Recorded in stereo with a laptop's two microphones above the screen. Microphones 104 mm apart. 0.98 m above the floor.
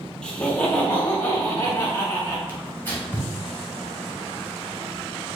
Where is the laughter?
10° left (ahead or behind), 1.0 m; by 2.4 s 25° left (ahead or behind), 2 m.